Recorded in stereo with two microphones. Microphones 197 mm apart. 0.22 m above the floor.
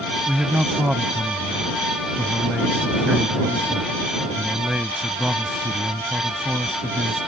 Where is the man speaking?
5° right (ahead or behind).